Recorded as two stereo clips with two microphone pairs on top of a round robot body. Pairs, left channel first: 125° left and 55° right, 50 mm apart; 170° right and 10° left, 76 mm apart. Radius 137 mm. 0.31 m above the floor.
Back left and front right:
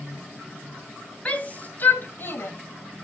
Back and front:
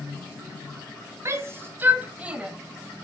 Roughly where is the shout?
Ahead left.